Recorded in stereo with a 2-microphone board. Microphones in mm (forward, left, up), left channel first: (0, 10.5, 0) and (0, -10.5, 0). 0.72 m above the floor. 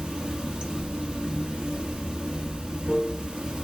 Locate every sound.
0.0 s running water: 60° right (ahead or behind), 1.0 m